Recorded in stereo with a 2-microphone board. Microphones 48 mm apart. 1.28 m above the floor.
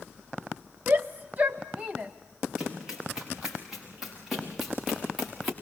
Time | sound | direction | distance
0.9 | a shout | 50° right (ahead or behind) | 0.7 m
2.6 | running footsteps | 15° right (ahead or behind) | 8.5 m